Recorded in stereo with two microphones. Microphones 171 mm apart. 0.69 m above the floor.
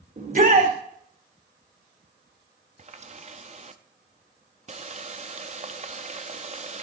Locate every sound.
0.2 s a shout: 50° right (ahead or behind), 1.9 m
2.8 s a running tap: 40° right (ahead or behind), 0.6 m